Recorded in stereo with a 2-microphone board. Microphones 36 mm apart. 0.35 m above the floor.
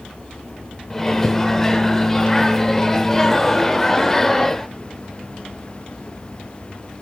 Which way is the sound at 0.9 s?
15° left (ahead or behind).